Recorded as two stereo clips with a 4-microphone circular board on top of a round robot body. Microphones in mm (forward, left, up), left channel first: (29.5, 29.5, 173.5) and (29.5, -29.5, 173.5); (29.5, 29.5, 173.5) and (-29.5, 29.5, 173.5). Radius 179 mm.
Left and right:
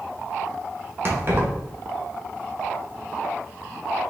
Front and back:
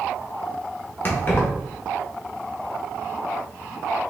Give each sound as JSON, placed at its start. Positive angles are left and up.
{"t": 1.1, "sound": "keys jangling", "azimuth_deg": -50, "distance_m": 1.6}